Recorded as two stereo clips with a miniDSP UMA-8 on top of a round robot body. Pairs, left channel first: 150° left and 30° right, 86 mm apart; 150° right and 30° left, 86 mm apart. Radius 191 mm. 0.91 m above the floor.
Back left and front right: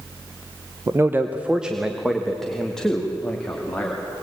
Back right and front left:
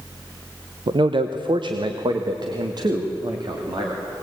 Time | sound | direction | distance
0.9 | a man speaking | 25° left | 0.8 m